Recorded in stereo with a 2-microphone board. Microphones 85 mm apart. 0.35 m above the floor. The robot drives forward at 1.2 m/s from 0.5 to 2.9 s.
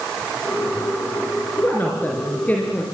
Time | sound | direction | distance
1.6 | a woman speaking | 25° left (ahead or behind) | 4 m